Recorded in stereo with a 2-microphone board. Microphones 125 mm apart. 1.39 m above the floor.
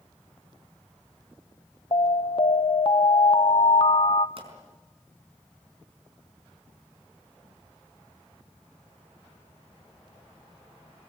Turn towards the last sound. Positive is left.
turn(degrees=-50)  # may be behind; listen again after turning